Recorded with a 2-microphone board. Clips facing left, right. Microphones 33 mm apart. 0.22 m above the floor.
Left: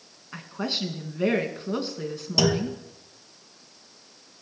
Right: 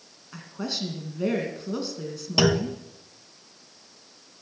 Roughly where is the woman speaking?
Left.